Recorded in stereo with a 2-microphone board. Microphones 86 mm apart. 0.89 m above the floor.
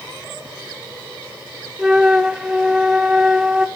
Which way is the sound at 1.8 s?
10° right (ahead or behind).